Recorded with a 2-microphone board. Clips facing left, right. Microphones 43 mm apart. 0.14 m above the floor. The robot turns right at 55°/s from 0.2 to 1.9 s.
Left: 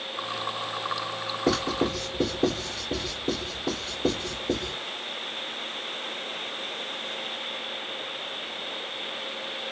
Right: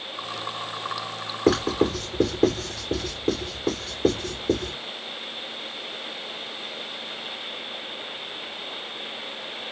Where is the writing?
80° right, 2.5 m; by 4.7 s 55° right (ahead or behind), 2.5 m.